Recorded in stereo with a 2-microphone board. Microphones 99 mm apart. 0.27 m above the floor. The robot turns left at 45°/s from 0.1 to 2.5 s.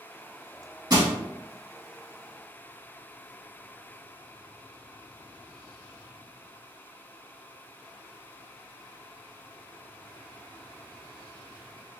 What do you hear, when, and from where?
0.9 s crushing: 45° right (ahead or behind), 0.9 m; by 1.1 s 35° right (ahead or behind), 0.9 m